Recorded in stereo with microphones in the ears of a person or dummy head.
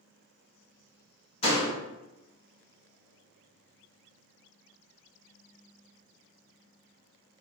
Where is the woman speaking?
No woman speaking in this recording.